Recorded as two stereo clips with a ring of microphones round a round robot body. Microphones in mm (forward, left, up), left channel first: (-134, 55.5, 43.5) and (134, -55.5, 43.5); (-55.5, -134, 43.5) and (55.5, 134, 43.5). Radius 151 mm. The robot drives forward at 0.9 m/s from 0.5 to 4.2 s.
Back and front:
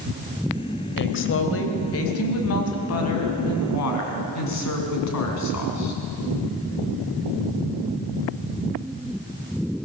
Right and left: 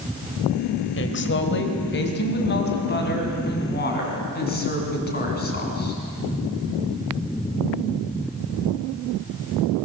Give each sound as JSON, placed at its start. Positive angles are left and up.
{"t": 1.0, "sound": "a woman speaking", "azimuth_deg": -155, "distance_m": 2.5}